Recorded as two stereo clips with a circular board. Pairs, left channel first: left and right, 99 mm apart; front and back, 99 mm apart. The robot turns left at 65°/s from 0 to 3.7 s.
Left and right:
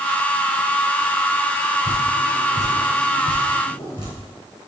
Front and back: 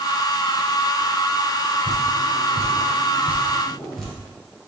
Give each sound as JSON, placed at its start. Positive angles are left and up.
{"t": 1.9, "sound": "dripping", "azimuth_deg": -150, "distance_m": 2.5}